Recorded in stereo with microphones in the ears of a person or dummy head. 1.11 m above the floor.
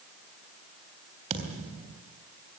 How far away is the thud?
About 3.5 m.